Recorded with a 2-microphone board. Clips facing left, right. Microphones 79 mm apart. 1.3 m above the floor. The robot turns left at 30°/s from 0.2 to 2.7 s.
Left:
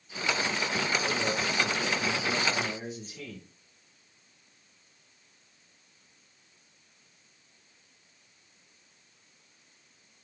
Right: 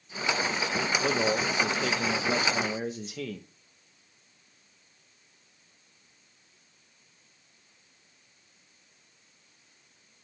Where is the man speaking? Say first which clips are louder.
Right 4 dB; 65° right, 1.2 m; by 3.5 s 115° right, 1.2 m.